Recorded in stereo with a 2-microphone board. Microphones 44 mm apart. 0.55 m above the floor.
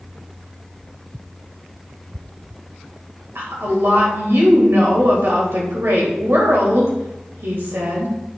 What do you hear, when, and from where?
3.4 s a woman speaking: 70° right (ahead or behind), 2.5 m